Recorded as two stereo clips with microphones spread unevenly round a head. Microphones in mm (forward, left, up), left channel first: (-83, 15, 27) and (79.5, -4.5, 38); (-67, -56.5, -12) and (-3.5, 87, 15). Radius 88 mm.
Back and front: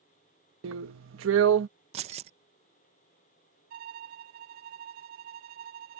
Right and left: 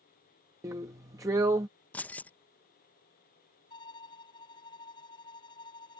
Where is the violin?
45° right.